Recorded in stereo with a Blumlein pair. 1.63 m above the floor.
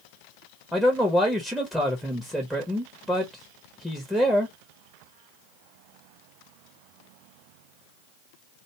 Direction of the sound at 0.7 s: Straight ahead.